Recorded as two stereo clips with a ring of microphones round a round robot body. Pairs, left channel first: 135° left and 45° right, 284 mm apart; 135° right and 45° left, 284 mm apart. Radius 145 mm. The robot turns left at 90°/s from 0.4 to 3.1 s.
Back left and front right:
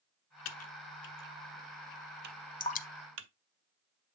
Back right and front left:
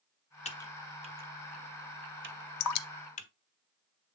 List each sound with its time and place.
0.5 s typing on a keyboard: 165° left, 0.9 m; by 3.3 s 75° right, 0.9 m
2.6 s dripping: 150° right, 0.5 m; by 2.9 s 175° right, 0.5 m